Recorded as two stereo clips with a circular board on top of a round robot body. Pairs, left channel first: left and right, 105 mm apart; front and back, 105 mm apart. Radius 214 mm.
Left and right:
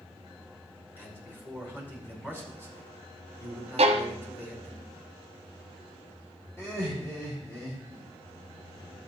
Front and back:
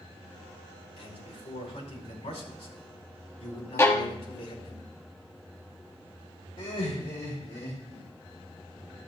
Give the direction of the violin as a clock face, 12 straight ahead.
2 o'clock.